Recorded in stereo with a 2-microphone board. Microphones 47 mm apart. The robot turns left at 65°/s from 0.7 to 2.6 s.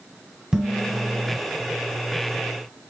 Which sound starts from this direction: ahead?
Dishes clattering, at 0.5 s.